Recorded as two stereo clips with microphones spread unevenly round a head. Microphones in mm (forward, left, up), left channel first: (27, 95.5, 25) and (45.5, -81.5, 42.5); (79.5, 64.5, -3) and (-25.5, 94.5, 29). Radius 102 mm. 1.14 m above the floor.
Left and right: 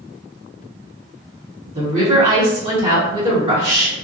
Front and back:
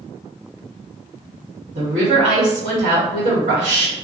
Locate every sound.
1.8 s a woman speaking: 145° right, 1.1 m